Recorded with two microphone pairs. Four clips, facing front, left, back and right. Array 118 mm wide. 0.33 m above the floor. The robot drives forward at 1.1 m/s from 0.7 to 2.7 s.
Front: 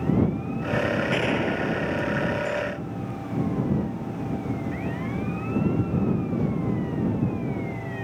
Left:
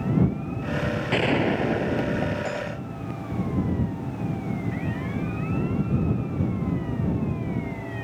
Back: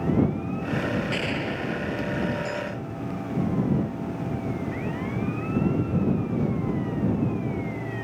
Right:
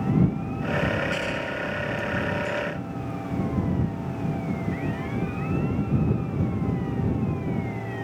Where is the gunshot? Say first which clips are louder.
Left 6 dB, front 4 dB; 65° left; by 3.2 s 85° left.